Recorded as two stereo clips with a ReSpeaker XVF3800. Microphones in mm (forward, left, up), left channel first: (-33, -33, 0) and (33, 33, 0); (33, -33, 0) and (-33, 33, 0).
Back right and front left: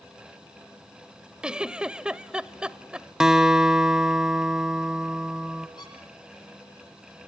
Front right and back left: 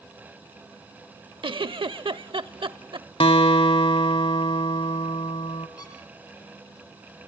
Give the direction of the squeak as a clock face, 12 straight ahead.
3 o'clock.